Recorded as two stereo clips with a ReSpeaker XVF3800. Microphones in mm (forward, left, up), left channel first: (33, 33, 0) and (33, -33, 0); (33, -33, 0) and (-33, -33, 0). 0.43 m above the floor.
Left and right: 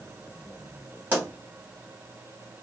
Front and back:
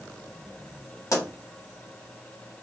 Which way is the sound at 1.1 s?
30° right.